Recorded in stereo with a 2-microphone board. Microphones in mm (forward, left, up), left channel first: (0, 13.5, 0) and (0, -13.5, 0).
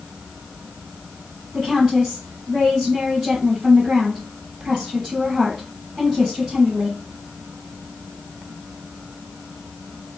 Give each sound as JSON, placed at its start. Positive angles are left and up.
{"t": 1.5, "sound": "a woman speaking", "side_deg": -20, "distance_m": 2.0}